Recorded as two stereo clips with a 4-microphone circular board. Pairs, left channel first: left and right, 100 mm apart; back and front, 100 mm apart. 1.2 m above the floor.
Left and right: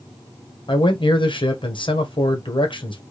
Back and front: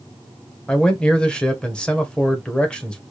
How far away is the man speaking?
About 1.0 m.